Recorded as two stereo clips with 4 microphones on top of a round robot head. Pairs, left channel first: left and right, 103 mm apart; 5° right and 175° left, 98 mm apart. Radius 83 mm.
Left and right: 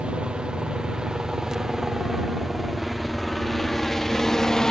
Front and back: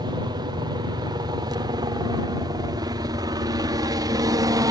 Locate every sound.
0.0 s a helicopter: 165° right; by 4.7 s 170° left